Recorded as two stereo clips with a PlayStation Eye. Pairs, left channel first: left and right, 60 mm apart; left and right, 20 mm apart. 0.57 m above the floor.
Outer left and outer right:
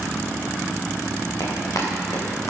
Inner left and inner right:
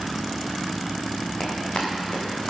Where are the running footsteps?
65° left (ahead or behind), 7 m; by 2.5 s 60° left (ahead or behind), 7.5 m.